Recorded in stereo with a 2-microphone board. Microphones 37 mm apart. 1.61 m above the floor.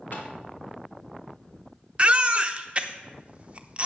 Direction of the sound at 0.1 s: 60° left (ahead or behind).